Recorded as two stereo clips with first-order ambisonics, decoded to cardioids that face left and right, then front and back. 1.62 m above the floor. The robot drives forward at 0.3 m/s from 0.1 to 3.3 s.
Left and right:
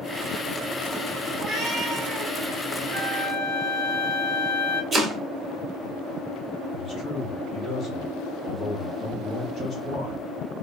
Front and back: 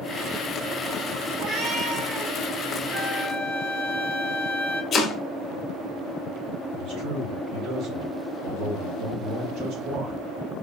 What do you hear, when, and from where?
1.4 s a cat meowing: 115° right, 1.7 m; by 2.4 s 130° right, 1.8 m
2.9 s a flute: 140° right, 1.7 m
4.9 s chopping: 40° right, 0.6 m
6.7 s a man speaking: 170° left, 1.6 m